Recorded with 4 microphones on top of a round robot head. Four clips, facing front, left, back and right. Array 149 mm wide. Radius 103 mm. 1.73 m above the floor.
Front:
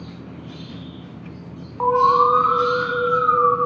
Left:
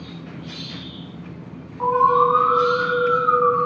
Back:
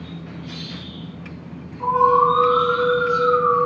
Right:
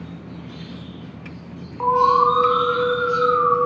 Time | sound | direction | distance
1.8 | an alarm | 20° right | 8 m